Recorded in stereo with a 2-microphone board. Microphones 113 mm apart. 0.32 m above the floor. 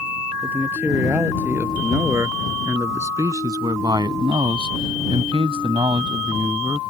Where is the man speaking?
15° right (ahead or behind); by 6.8 s 30° right (ahead or behind).